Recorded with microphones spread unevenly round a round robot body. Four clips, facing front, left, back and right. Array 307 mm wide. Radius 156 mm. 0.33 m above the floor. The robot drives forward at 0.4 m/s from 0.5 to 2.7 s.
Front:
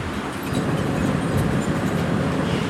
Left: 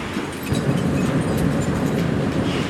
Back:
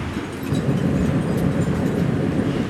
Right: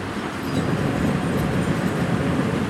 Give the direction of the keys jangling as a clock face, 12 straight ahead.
8 o'clock.